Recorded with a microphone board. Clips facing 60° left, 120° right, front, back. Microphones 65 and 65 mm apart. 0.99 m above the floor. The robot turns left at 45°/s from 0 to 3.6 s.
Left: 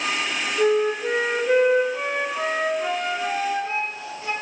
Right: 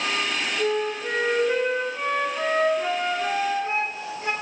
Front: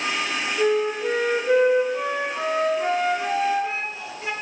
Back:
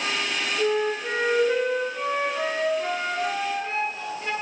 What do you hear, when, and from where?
0.6 s a flute: 60° left, 2 m; by 4.3 s 75° right, 2 m